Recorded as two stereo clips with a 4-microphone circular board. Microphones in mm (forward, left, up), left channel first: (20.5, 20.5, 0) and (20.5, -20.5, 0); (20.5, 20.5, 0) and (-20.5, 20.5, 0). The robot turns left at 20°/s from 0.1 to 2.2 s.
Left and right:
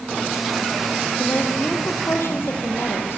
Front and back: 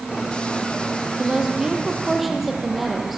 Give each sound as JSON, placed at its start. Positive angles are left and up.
{"t": 1.2, "sound": "a woman speaking", "azimuth_deg": 115, "distance_m": 4.5}